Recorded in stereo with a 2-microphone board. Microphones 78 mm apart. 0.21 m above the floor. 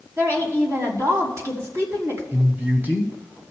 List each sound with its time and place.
0.2 s a woman speaking: 40° right (ahead or behind), 2.0 m
2.3 s a man speaking: 25° right (ahead or behind), 1.3 m